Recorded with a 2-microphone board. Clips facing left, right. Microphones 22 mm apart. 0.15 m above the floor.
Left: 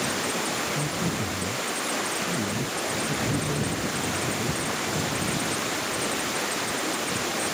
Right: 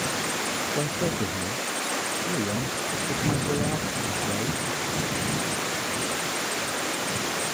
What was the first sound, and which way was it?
A man speaking, 80° right.